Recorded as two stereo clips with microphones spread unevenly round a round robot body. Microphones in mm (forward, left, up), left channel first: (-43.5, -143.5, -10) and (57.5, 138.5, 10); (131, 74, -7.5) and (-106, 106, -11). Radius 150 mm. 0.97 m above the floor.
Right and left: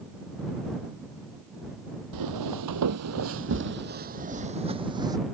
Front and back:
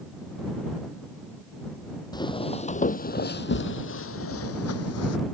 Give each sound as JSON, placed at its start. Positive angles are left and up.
{"t": 2.1, "sound": "footsteps", "azimuth_deg": 65}